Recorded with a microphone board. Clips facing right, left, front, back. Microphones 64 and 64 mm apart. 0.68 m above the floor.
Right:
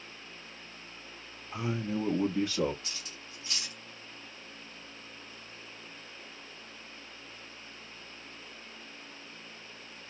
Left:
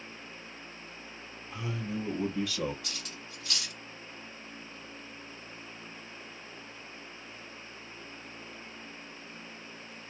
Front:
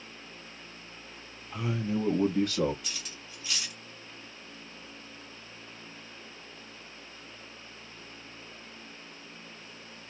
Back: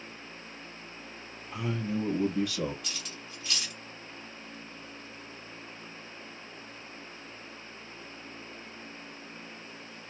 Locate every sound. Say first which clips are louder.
1.5 s a man speaking: right 3 dB, front 1 dB; 115° right, 0.6 m; by 2.7 s 35° right, 1.1 m
2.8 s cutlery clinking: left 3 dB, back 2 dB; 85° left, 1.3 m